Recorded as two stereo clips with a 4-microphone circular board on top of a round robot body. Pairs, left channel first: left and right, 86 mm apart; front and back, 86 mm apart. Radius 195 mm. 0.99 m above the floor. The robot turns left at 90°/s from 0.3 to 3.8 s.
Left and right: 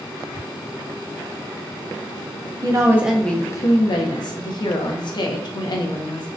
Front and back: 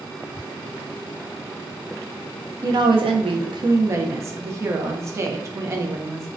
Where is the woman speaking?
130° right, 0.6 m; by 6.3 s 125° left, 0.6 m.